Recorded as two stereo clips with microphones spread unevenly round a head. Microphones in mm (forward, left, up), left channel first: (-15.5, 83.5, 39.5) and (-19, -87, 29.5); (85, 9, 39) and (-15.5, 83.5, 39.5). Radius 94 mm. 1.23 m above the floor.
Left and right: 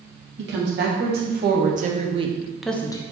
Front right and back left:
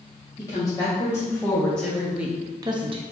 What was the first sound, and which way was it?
A woman speaking, 105° right.